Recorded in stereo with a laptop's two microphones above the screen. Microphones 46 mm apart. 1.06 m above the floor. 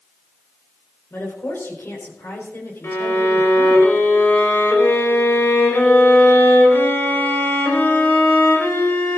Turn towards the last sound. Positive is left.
turn(degrees=75)  # may be behind; listen again after turning